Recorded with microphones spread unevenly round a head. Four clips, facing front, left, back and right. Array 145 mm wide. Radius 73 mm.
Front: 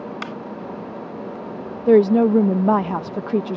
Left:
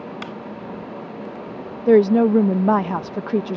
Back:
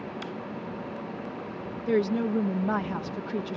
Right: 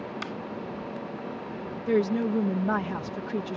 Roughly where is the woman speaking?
Ahead left.